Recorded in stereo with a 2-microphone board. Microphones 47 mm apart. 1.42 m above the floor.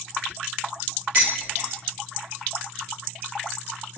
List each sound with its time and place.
1.1 s dishes clattering: 60° right (ahead or behind), 1.4 m